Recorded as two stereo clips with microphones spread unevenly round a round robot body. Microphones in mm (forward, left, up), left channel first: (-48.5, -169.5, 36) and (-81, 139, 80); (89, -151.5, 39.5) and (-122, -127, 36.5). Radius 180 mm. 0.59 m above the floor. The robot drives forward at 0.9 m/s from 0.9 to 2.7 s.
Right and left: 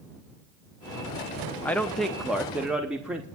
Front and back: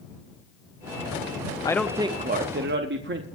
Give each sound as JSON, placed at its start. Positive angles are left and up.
{"t": 1.6, "sound": "a man speaking", "azimuth_deg": -35, "distance_m": 0.6}